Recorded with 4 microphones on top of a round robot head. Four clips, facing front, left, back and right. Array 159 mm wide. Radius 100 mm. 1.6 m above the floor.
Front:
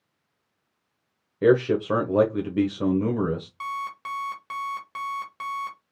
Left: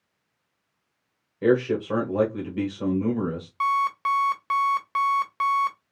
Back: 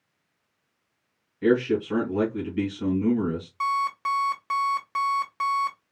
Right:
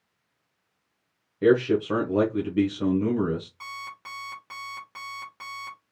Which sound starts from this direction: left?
An alarm clock, at 3.6 s.